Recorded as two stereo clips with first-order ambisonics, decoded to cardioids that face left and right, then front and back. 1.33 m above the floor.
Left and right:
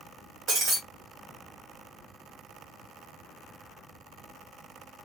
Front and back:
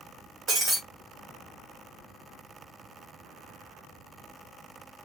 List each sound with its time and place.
0.5 s breaking glass: 130° right, 1.6 m